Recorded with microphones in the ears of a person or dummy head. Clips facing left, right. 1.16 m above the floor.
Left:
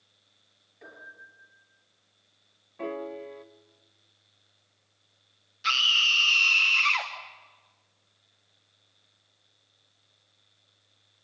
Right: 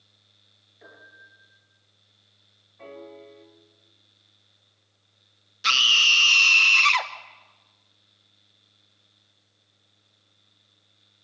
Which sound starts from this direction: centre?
A piano, at 0.8 s.